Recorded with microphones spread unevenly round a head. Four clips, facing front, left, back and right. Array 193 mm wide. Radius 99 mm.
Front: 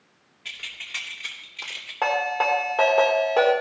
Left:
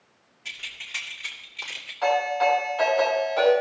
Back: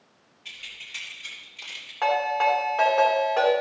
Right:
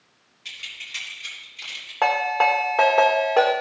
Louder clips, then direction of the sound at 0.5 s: Even, front 5 dB; 10° left.